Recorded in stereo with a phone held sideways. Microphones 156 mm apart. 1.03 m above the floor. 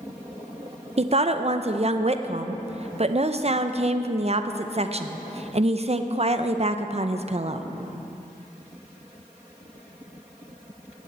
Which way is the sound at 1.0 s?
45° right (ahead or behind).